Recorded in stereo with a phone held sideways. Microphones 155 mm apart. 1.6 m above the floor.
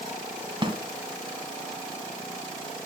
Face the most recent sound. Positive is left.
turn(degrees=-35)  # may be behind; listen again after turning